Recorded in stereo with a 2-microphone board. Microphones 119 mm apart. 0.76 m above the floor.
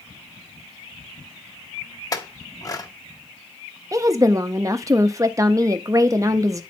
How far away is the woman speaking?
About 0.6 m.